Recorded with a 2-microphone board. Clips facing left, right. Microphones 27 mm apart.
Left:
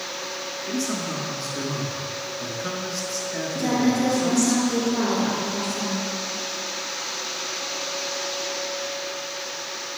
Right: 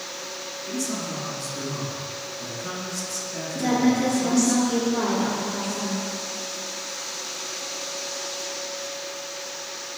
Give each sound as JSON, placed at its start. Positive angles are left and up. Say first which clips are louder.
{"t": 0.7, "sound": "a man speaking", "louder": "left 2 dB", "side_deg": 40, "distance_m": 2.0}
{"t": 3.5, "sound": "a woman speaking", "louder": "right 1 dB", "side_deg": -10, "distance_m": 3.0}